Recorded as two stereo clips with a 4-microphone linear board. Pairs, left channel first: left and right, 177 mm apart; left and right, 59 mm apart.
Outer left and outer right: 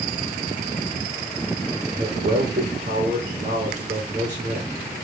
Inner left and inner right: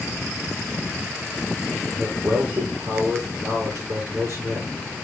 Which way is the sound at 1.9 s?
45° right (ahead or behind).